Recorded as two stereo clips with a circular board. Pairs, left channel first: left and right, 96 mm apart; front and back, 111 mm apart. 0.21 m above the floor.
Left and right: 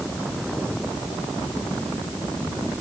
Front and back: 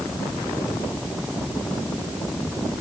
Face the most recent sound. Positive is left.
No sound to turn to.